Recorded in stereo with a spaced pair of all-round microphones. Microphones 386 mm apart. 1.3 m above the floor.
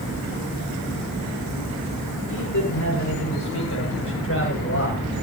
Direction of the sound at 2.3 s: 50° left (ahead or behind).